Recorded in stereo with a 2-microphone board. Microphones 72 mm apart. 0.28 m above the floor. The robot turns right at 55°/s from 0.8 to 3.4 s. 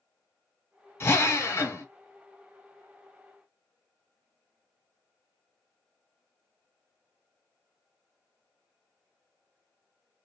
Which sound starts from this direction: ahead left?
A drill, at 1.0 s.